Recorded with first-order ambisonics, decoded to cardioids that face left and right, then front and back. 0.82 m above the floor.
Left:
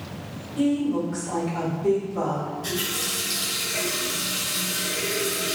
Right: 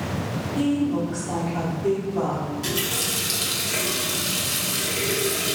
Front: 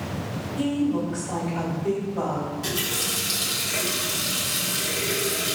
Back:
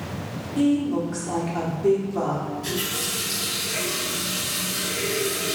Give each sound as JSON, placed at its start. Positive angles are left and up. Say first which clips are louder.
{"t": 0.6, "sound": "a woman speaking", "louder": "even, back 3 dB", "azimuth_deg": -170, "distance_m": 1.8}
{"t": 2.6, "sound": "a running tap", "louder": "right 3 dB, front 2 dB", "azimuth_deg": -65, "distance_m": 1.0}